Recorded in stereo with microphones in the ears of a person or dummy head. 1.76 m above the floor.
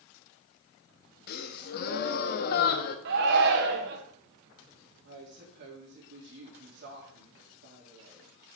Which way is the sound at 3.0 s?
55° right (ahead or behind).